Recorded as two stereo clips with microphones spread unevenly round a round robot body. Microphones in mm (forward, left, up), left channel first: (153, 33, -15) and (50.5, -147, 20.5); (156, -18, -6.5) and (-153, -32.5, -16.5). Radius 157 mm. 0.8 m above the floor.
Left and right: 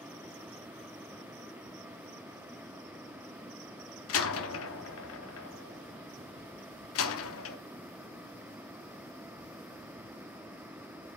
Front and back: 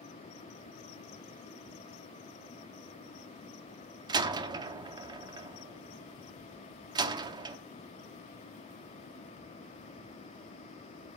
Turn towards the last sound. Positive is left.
turn(degrees=105)